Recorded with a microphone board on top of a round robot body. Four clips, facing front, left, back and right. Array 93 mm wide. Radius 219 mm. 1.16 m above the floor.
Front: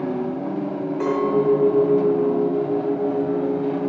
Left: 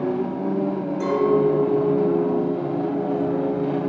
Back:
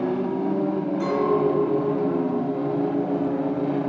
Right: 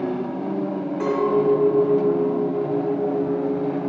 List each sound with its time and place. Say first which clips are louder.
1.0 s a clink: left 1 dB, front 3 dB; 40° right, 4 m